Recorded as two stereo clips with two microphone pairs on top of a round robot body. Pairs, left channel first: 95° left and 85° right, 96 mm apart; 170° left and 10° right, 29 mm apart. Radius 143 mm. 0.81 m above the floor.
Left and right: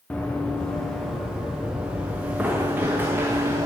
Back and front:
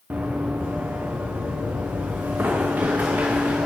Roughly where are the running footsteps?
Ahead.